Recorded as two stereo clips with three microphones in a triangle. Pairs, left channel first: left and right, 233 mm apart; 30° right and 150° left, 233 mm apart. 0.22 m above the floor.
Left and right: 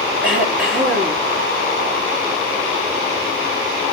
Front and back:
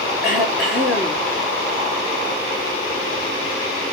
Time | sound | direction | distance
0.2 | throat clearing | 125° right | 3 m